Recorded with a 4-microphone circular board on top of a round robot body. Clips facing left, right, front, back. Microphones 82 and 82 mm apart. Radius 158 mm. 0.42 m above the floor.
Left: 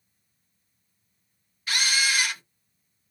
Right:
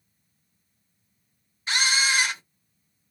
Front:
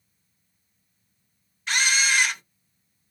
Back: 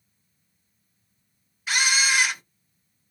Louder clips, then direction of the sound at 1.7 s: Right 2 dB, even; 100° right.